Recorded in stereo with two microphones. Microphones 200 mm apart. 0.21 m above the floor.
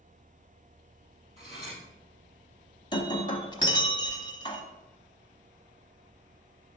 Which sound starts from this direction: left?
Breaking glass, at 2.9 s.